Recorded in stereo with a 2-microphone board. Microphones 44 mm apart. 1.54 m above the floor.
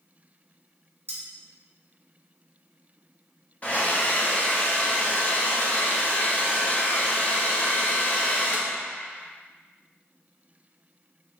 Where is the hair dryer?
35° left (ahead or behind), 0.8 m.